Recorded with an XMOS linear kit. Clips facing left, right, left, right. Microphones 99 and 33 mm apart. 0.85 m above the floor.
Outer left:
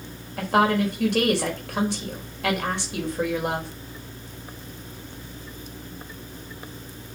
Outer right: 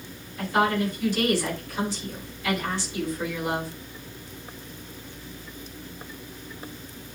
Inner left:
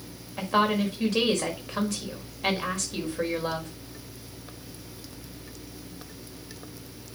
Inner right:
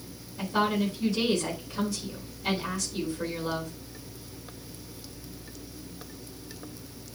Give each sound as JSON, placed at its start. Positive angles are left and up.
{"t": 0.4, "sound": "a woman speaking", "side_deg": 70, "distance_m": 4.5}